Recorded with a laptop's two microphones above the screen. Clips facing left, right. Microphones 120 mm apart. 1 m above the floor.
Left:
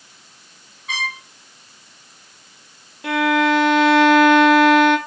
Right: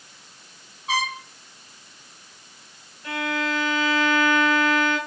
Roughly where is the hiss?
I don't hear a hiss.